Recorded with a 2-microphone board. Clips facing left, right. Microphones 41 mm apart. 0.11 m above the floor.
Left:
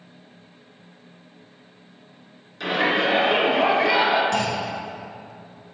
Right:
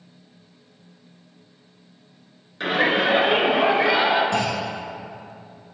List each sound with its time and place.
2.6 s a shout: 30° right (ahead or behind), 1.5 m; by 4.2 s 20° right (ahead or behind), 1.4 m
4.3 s a clunk: 25° right (ahead or behind), 1.2 m